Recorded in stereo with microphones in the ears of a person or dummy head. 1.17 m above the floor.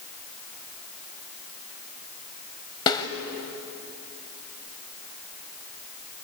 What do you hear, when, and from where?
2.9 s a snare drum: 20° left (ahead or behind), 1.7 m